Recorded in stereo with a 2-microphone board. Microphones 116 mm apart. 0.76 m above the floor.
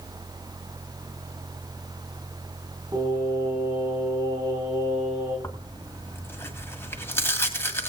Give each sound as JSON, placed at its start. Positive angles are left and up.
{"t": 2.9, "sound": "singing", "side_deg": -35, "distance_m": 9.5}
{"t": 5.4, "sound": "tearing paper", "side_deg": 20, "distance_m": 1.8}